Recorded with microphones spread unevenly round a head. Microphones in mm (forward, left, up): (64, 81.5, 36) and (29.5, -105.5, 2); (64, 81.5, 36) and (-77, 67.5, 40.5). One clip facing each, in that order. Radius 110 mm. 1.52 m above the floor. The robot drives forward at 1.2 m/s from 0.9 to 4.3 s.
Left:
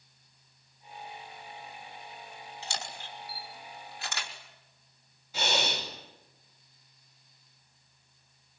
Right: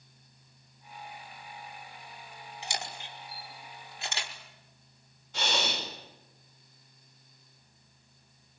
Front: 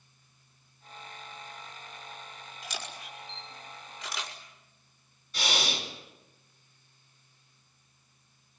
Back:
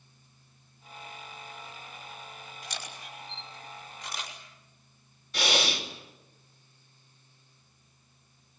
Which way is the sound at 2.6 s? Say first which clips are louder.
Right 2 dB, front 2 dB; 25° right.